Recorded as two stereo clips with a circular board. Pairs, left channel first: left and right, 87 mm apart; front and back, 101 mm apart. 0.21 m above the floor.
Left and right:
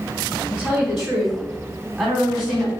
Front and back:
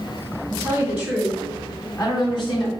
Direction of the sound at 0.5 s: 170° right.